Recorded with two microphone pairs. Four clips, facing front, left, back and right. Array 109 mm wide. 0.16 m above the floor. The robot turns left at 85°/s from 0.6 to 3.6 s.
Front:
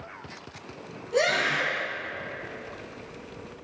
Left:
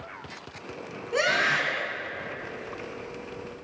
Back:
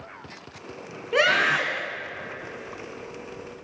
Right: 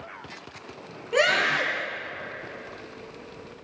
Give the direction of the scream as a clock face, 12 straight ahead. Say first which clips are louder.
Right 2 dB, back 3 dB; 6 o'clock.